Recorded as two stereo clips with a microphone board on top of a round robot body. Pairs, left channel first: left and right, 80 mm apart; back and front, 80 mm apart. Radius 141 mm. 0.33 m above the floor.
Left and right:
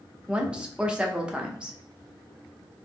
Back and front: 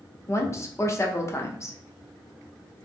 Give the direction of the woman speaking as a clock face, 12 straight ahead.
5 o'clock.